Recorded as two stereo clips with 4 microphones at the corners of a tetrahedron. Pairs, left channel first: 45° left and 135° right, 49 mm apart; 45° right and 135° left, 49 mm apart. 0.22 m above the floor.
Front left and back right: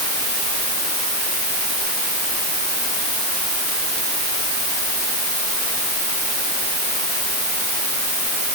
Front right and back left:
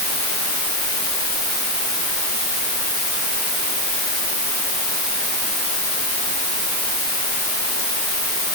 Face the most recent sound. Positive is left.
No sound to turn to.